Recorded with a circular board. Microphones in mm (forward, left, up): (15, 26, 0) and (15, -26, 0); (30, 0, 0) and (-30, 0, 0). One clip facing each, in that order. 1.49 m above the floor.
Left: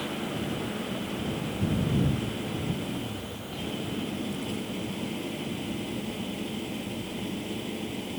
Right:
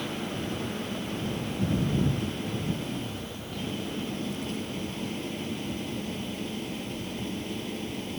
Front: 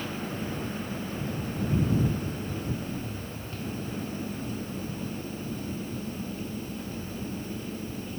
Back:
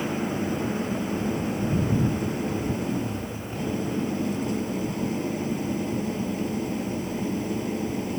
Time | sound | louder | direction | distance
0.0 | an engine running | left 1 dB, back 7 dB | straight behind | ?